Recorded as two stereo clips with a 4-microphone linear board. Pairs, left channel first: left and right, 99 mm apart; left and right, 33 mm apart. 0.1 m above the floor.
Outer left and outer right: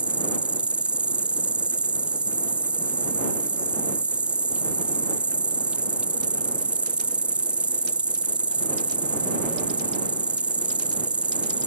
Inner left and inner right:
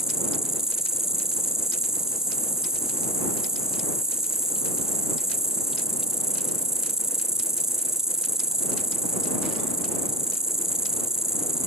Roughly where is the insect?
Centre.